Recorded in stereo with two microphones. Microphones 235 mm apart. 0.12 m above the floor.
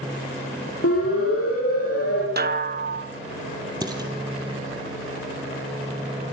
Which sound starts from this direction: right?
A snare drum, at 2.4 s.